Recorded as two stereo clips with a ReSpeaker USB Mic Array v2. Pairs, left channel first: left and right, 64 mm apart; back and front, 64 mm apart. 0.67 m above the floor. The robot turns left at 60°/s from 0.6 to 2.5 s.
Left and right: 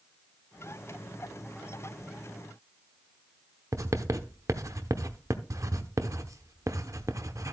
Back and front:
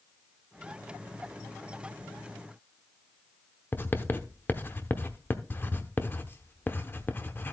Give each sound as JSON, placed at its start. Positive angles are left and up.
{"t": 3.7, "sound": "writing", "azimuth_deg": -125, "distance_m": 0.9}